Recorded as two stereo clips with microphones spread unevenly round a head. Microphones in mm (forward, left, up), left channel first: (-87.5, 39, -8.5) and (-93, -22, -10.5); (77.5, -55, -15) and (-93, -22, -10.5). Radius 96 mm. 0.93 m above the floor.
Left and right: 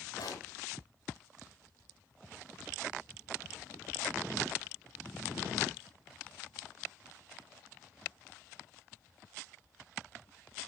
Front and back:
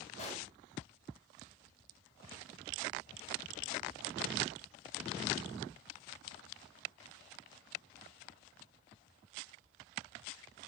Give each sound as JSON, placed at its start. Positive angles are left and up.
{"t": 0.2, "sound": "a pop", "azimuth_deg": 50, "distance_m": 4.0}